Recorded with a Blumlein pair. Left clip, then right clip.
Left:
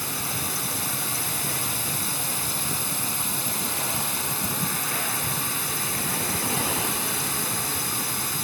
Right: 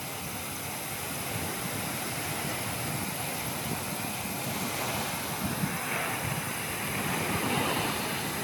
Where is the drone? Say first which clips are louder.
Left 7 dB; 60° left.